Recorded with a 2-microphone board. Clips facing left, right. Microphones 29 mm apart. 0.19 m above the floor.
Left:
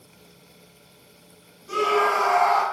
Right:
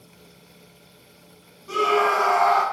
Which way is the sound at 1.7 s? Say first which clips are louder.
Right 1 dB; 25° right (ahead or behind).